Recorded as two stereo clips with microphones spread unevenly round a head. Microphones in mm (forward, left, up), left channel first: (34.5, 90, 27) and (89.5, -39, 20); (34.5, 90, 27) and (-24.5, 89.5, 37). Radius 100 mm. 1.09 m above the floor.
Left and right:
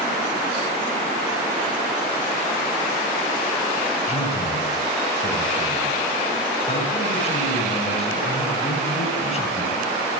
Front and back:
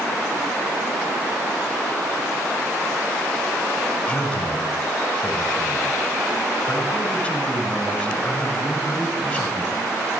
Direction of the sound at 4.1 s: 70° left.